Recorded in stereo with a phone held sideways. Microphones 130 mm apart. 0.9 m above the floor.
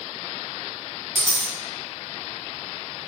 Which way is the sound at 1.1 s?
25° right (ahead or behind).